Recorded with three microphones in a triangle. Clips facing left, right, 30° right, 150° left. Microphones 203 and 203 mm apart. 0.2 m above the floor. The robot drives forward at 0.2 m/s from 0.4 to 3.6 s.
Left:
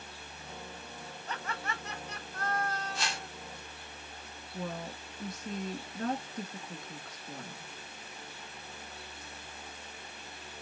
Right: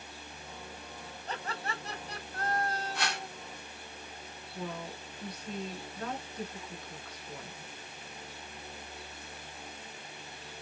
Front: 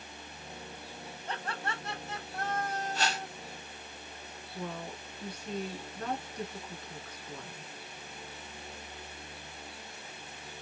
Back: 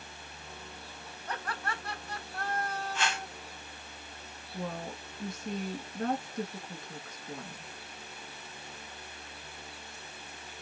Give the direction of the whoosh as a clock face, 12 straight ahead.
3 o'clock.